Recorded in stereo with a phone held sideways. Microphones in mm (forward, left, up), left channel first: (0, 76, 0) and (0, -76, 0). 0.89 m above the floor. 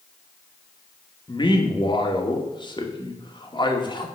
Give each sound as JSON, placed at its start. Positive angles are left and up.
{"t": 1.3, "sound": "a man speaking", "side_deg": 30, "distance_m": 1.8}